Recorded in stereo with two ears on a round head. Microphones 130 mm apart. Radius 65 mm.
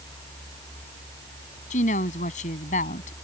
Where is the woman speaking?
55° left (ahead or behind).